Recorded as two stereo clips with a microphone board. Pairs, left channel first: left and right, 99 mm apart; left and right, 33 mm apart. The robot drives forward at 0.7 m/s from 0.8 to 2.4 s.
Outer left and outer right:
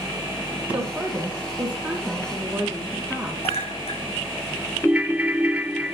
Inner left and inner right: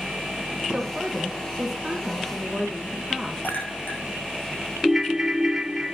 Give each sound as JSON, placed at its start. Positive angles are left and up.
{"t": 0.7, "sound": "a woman speaking", "side_deg": -15, "distance_m": 1.7}
{"t": 3.4, "sound": "a clink", "side_deg": 85, "distance_m": 5.0}
{"t": 4.8, "sound": "a ringtone", "side_deg": -10, "distance_m": 0.5}